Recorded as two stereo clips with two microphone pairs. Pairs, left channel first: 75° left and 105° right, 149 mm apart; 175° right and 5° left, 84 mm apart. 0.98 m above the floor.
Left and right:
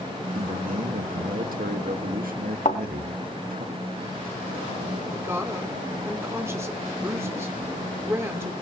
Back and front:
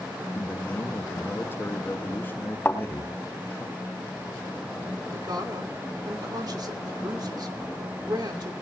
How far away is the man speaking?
About 1.5 m.